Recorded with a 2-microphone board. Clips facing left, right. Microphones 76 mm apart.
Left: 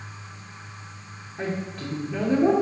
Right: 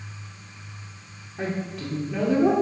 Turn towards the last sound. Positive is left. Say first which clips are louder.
# right 1 dB
turn(degrees=-5)  # may be behind; listen again after turning